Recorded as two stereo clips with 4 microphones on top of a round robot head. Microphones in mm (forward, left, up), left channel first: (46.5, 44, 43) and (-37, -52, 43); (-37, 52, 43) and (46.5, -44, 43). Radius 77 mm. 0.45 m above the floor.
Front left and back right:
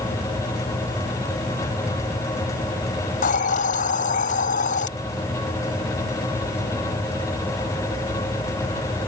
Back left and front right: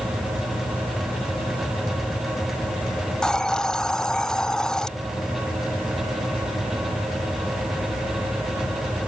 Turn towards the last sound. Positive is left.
turn(degrees=45)